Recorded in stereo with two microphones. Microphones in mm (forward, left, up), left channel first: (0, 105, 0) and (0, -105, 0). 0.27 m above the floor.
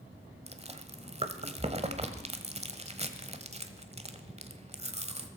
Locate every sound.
0.5 s chewing: 30° right (ahead or behind), 1.2 m